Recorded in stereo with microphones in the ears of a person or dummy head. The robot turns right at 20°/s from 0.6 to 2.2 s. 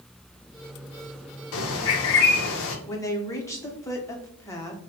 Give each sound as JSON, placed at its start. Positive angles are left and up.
{"t": 1.5, "sound": "a bird", "side_deg": 75, "distance_m": 0.8}
{"t": 2.9, "sound": "a woman speaking", "side_deg": 15, "distance_m": 0.9}